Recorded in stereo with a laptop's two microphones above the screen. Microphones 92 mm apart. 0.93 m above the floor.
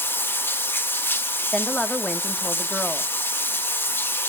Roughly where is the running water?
Left.